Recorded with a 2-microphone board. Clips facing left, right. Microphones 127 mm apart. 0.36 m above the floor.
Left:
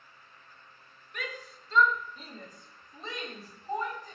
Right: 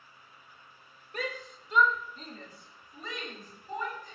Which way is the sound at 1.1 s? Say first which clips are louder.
Right 4 dB; 40° right (ahead or behind).